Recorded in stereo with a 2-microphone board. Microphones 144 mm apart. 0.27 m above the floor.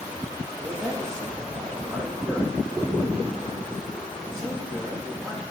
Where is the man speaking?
5° left (ahead or behind), 9 m.